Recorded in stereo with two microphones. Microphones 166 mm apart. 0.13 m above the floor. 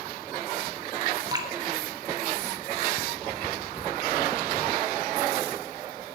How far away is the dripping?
About 1.4 m.